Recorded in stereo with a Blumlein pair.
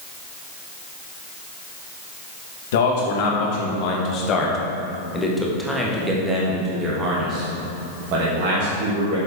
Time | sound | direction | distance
2.7 | a man speaking | 55° left | 2.5 m